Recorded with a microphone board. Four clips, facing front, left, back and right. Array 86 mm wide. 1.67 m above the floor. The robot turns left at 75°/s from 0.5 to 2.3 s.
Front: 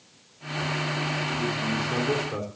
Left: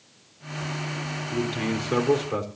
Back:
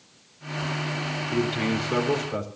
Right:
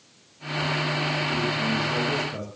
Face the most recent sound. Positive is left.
turn(degrees=85)